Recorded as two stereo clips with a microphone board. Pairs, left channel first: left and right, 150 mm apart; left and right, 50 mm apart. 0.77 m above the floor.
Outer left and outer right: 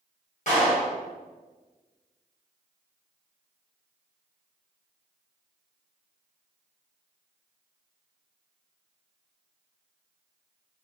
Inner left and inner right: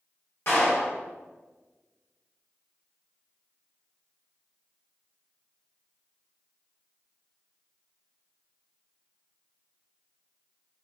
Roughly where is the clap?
Left.